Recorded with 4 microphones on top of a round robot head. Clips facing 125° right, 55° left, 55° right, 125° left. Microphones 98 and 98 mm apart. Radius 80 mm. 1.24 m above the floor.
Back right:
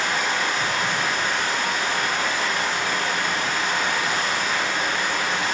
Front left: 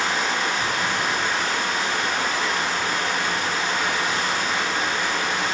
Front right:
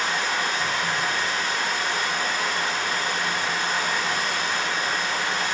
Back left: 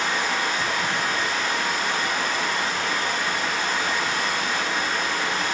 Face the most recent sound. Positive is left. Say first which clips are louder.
# even, back left 1 dB
turn(degrees=120)